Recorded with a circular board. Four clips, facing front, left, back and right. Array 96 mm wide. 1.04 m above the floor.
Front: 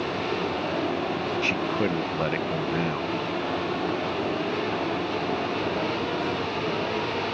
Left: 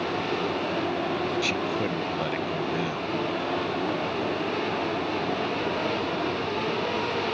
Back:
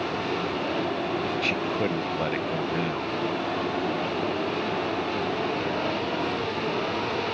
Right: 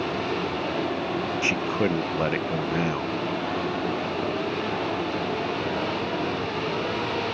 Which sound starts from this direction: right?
A man speaking, at 1.4 s.